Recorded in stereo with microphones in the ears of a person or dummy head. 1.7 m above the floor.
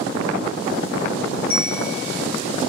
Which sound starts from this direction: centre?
A bell, at 1.5 s.